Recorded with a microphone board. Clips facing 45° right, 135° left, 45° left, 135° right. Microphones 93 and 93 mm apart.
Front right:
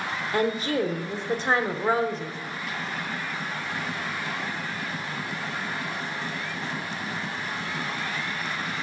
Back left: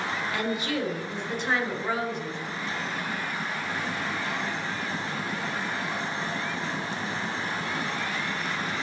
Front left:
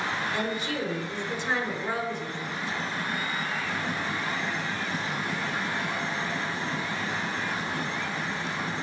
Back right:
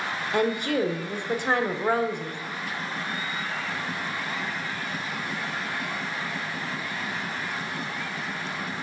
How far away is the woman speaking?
About 1.1 m.